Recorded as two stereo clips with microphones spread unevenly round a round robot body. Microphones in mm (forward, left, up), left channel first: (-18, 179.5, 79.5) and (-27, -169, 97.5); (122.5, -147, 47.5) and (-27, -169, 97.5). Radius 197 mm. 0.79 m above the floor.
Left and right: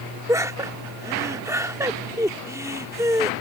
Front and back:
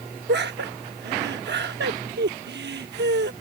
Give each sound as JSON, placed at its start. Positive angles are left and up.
{"t": 0.3, "sound": "laughter", "azimuth_deg": -175}